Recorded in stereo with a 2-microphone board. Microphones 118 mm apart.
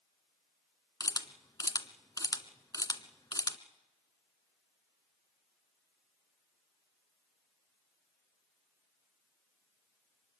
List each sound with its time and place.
1.0 s a camera shutter: 30° left (ahead or behind), 1.1 m